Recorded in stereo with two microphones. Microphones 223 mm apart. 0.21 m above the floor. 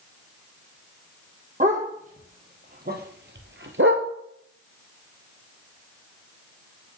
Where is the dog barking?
35° right (ahead or behind), 2.0 m; by 4.1 s 70° right (ahead or behind), 0.9 m.